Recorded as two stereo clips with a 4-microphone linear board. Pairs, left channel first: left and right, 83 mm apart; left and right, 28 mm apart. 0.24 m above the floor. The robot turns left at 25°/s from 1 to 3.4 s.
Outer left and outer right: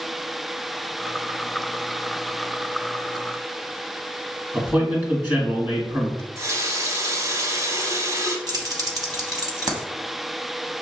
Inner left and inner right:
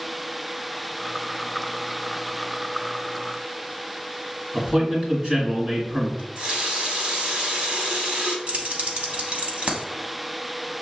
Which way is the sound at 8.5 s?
50° right (ahead or behind).